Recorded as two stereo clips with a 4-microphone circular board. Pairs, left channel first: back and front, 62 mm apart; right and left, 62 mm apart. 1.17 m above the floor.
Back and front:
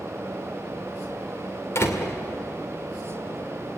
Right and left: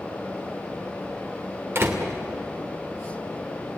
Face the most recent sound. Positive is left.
turn(degrees=135)